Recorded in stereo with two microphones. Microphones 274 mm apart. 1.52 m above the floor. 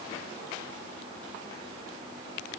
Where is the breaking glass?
I don't hear breaking glass.